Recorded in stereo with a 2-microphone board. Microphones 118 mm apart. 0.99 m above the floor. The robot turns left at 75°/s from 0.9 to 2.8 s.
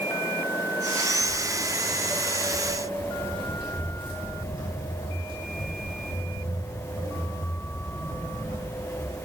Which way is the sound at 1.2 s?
40° left (ahead or behind).